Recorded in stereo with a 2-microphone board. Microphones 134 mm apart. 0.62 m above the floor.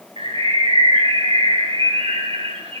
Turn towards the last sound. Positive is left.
turn(degrees=-45)  # may be behind; listen again after turning